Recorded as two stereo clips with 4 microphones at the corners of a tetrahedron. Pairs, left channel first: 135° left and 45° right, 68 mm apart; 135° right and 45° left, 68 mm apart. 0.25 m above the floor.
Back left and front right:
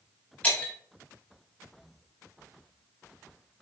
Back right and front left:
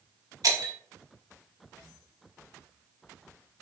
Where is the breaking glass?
65° left, 1.1 m.